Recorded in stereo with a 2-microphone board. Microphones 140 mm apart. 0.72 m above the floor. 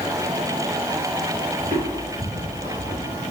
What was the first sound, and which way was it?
Footsteps, 60° right (ahead or behind).